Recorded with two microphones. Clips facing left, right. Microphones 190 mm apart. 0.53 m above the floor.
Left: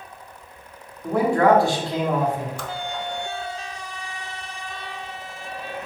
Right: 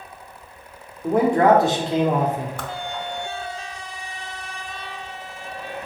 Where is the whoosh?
55° right (ahead or behind), 0.6 m.